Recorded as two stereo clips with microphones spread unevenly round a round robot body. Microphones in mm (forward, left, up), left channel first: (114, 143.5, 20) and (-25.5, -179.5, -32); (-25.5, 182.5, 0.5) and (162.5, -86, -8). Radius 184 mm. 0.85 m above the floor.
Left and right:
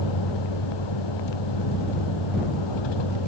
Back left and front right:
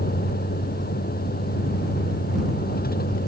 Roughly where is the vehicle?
Ahead left.